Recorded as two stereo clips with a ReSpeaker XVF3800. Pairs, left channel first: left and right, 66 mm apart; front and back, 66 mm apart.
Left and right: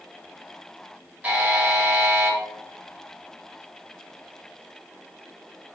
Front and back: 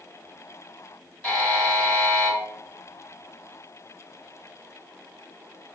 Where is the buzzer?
65° right, 1.9 m.